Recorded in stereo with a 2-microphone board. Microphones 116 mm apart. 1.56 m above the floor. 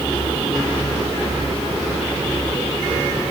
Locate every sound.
Only background noise.